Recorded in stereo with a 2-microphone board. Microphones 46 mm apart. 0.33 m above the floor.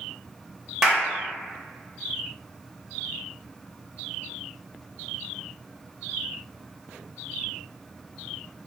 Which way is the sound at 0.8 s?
10° right (ahead or behind).